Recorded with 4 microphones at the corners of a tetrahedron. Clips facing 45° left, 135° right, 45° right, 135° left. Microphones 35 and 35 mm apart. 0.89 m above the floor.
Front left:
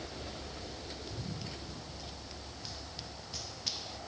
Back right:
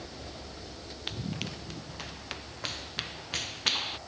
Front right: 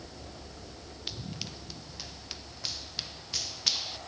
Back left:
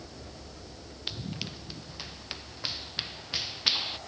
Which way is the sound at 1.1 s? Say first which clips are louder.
Back right 10 dB, back left 3 dB; 150° right.